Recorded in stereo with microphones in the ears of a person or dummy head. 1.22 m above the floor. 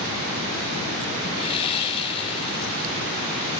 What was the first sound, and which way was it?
Sawing, 30° left (ahead or behind).